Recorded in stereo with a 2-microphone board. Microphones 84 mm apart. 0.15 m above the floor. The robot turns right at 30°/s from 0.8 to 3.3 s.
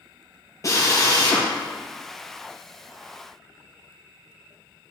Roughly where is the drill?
Left.